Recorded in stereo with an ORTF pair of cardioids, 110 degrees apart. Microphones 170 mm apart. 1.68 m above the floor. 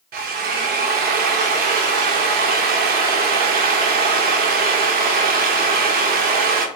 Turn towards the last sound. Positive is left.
turn(degrees=-65)